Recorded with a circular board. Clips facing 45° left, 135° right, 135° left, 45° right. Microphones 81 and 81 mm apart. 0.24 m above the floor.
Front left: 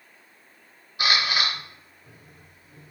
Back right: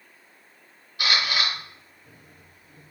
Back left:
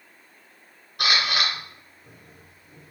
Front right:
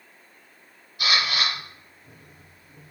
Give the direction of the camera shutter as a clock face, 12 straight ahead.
8 o'clock.